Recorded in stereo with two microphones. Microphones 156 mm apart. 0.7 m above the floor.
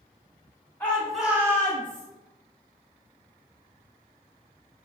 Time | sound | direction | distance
0.8 | a shout | 10° left (ahead or behind) | 1.0 m